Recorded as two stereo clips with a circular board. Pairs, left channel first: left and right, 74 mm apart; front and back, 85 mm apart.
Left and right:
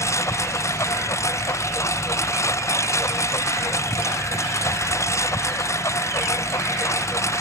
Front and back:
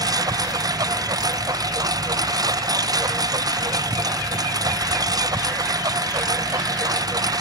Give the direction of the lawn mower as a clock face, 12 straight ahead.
7 o'clock.